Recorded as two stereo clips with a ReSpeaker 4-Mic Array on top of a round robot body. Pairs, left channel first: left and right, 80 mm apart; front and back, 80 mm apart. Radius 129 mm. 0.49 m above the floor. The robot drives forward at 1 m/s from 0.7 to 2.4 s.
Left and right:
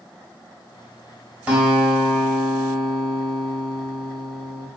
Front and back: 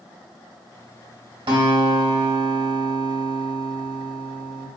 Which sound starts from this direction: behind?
A guitar, at 1.5 s.